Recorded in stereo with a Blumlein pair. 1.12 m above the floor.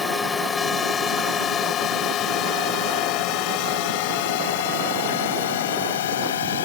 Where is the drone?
15° left; by 6.7 s 60° left.